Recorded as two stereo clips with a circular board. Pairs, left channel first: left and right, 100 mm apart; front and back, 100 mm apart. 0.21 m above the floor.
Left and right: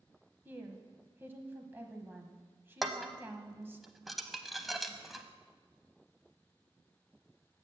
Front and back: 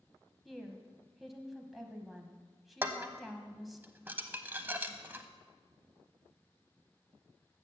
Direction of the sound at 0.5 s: 90° right.